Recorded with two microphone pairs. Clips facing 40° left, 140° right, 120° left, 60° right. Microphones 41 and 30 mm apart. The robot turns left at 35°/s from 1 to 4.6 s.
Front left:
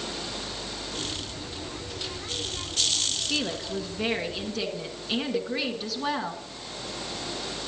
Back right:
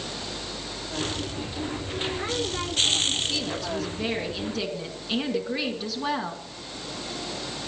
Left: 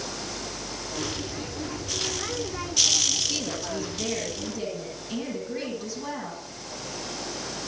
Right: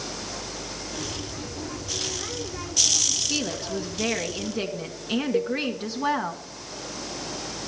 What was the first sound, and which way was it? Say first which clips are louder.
A woman speaking: even, right 2 dB; 5° right.